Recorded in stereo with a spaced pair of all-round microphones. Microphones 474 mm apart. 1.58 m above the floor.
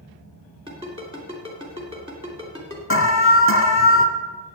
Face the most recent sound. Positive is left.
turn(degrees=25)  # may be behind; listen again after turning